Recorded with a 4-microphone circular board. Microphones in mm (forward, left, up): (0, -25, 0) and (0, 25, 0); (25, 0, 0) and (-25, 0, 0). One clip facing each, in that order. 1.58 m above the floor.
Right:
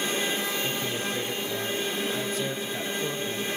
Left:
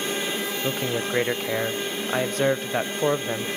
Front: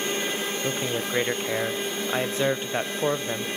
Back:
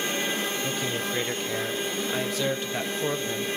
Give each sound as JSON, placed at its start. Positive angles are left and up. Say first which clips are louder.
{"t": 0.6, "sound": "a man speaking", "louder": "left 4 dB, front 1 dB", "azimuth_deg": 60, "distance_m": 1.1}